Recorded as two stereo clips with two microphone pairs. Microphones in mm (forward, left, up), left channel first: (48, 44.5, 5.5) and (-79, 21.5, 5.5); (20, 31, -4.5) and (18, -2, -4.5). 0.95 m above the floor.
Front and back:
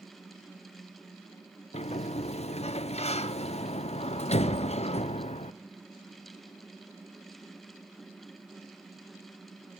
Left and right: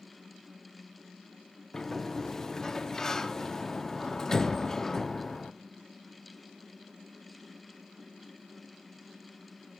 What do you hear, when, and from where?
1.7 s a sliding door: 25° left, 0.5 m